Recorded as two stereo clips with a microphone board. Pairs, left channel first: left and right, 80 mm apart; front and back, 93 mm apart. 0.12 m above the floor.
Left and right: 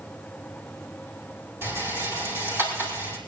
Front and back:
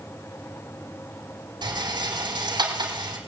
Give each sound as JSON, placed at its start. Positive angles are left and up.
{"t": 1.6, "sound": "a rattle", "azimuth_deg": -150, "distance_m": 6.0}